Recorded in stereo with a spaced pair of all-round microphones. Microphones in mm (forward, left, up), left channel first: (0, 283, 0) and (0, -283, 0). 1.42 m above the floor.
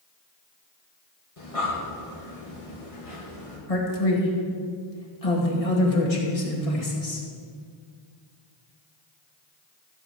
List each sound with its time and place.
1.4 s breathing: 70° left (ahead or behind), 2.5 m
3.7 s a man speaking: 85° left, 2.5 m